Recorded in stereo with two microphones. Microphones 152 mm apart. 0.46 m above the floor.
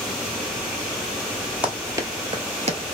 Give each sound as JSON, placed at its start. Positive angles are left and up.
{"t": 1.6, "sound": "running footsteps", "side_deg": -10, "distance_m": 0.8}